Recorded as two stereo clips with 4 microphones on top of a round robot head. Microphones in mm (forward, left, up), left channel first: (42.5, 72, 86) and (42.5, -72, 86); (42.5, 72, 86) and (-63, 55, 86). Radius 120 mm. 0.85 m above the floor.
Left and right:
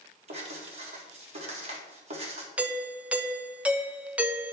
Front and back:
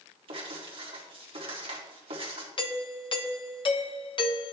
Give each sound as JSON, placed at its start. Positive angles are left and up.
{"t": 0.3, "sound": "writing", "azimuth_deg": -135, "distance_m": 2.0}
{"t": 2.6, "sound": "a doorbell", "azimuth_deg": -10, "distance_m": 1.2}